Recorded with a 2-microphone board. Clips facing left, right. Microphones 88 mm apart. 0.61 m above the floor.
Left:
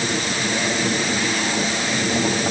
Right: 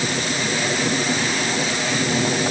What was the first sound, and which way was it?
Only background noise.